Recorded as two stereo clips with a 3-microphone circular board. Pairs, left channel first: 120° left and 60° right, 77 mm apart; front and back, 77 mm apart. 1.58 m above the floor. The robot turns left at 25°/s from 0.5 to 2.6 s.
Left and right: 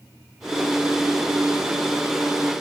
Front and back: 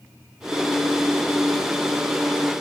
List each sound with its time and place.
Only background noise.